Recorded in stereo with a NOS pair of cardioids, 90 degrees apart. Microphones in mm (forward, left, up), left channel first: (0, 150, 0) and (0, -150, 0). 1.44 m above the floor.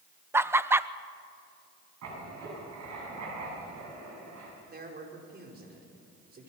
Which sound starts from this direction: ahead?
Laughter, at 0.3 s.